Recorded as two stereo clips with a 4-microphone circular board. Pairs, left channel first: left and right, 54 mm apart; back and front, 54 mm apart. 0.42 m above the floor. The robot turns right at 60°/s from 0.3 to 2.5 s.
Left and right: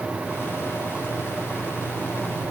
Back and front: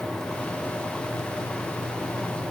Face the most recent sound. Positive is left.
No sound to turn to.